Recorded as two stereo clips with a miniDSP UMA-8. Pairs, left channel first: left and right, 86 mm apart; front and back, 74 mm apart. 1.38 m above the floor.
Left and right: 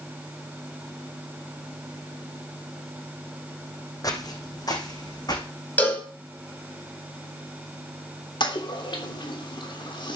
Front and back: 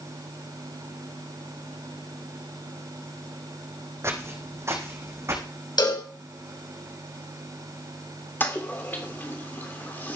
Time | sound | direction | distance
4.0 | footsteps | 130° left | 3 m
5.8 | a cowbell | 20° left | 5 m
8.4 | a toilet flushing | 65° left | 3 m